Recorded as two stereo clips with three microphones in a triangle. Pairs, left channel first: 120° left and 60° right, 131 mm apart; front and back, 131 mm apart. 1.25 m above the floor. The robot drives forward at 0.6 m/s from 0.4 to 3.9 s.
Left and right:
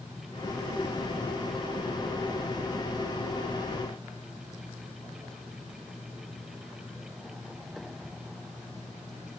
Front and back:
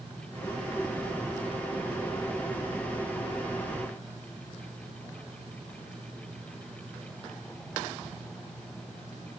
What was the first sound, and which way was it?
Only background noise.